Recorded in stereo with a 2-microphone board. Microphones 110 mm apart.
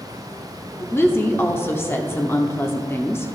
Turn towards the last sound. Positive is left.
turn(degrees=20)  # may be behind; listen again after turning